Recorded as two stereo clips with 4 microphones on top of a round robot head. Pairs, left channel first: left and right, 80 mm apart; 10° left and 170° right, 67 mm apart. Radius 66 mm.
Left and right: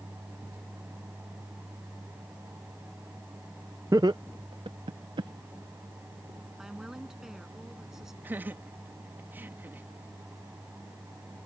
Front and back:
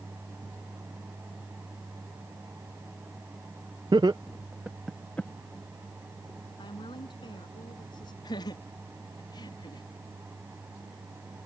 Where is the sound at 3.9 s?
150° right; by 5.3 s 70° right.